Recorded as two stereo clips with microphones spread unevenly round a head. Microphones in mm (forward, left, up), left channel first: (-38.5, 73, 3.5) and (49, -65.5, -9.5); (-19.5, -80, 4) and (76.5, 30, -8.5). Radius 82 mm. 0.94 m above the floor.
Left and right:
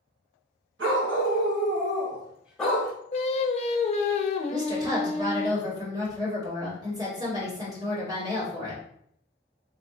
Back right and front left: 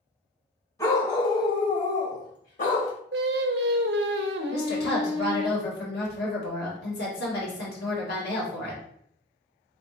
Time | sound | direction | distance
0.8 | a dog barking | 70° right | 2.0 m
3.1 | singing | 70° left | 0.5 m
4.5 | a woman speaking | 125° right | 1.7 m